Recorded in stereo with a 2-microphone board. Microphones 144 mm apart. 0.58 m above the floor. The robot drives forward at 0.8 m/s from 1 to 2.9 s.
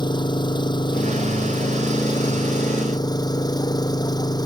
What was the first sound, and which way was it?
An engine running, 30° left (ahead or behind).